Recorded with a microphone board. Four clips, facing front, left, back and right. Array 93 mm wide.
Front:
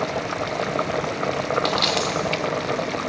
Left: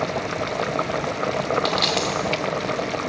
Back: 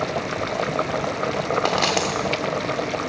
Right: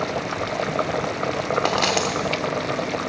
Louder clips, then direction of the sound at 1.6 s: Right 1 dB, back 1 dB; 135° right.